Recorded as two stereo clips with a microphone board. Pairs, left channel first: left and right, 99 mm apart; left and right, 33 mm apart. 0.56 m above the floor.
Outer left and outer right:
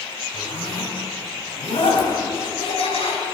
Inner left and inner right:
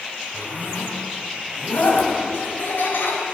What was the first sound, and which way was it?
A zipper, 70° left (ahead or behind).